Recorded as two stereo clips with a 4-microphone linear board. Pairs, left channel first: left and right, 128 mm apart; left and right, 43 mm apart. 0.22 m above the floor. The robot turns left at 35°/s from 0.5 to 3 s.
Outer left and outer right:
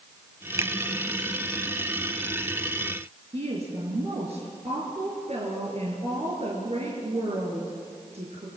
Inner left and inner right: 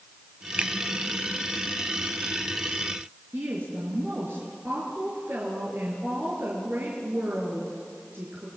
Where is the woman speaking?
55° right (ahead or behind), 4.5 m.